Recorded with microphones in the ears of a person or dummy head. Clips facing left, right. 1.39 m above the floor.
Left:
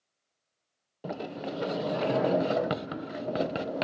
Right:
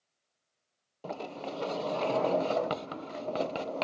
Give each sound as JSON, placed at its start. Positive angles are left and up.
{"t": 1.0, "sound": "a sliding door", "side_deg": 10}